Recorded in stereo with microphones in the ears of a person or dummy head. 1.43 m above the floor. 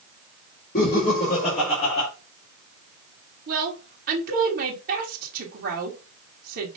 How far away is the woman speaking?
About 1.4 m.